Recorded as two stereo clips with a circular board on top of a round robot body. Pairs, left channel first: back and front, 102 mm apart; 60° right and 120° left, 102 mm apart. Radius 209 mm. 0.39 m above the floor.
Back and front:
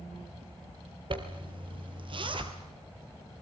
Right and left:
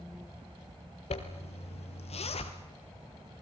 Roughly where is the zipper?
Ahead right.